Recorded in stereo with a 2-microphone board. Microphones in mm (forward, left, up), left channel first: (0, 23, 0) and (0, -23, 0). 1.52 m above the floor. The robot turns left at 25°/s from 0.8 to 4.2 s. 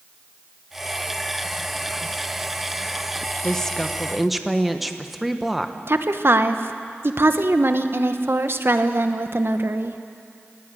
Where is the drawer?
I don't hear a drawer.